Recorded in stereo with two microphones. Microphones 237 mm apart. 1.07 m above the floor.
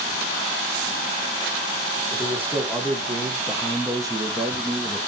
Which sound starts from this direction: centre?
A man speaking, at 2.1 s.